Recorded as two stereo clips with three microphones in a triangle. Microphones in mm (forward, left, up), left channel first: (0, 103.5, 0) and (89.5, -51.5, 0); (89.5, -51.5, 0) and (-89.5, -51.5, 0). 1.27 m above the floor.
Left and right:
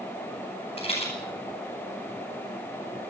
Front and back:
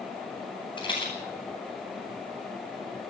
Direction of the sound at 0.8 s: 65° left.